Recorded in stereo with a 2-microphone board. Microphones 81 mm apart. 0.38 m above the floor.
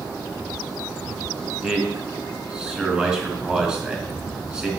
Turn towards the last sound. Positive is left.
turn(degrees=-10)  # may be behind; listen again after turning